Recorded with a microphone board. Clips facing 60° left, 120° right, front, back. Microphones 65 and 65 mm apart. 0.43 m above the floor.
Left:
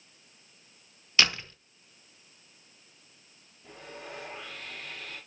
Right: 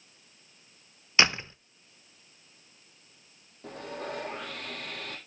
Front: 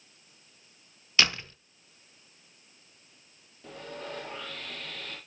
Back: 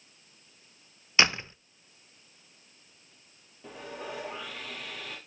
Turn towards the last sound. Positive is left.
turn(degrees=-100)